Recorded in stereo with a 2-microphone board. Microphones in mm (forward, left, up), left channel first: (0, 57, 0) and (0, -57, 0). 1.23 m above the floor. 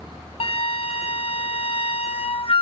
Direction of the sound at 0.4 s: 55° left (ahead or behind).